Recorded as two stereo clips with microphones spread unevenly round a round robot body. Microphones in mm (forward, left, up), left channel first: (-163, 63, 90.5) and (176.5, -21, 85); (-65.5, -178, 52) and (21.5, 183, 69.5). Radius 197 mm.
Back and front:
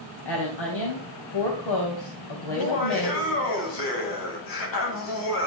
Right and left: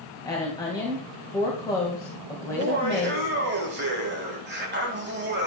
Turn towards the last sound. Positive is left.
turn(degrees=140)